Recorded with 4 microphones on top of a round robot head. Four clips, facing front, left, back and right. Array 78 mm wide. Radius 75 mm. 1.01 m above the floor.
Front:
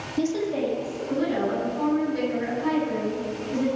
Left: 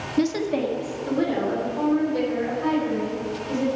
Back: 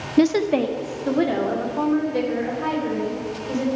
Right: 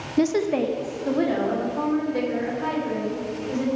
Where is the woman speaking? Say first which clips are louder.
Right 2 dB, back 7 dB; 160° right, 0.5 m; by 3.6 s 140° right, 5.5 m.